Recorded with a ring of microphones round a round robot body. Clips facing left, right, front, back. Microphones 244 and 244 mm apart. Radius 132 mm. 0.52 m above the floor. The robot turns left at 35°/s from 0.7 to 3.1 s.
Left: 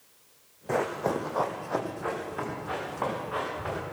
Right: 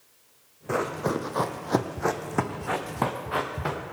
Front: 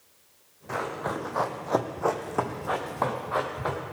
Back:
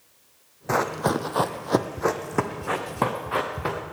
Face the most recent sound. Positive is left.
turn(degrees=-130)